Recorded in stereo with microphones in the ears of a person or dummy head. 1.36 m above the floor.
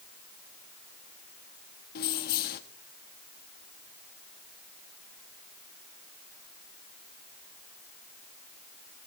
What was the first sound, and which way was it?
Keys jangling, 45° left (ahead or behind).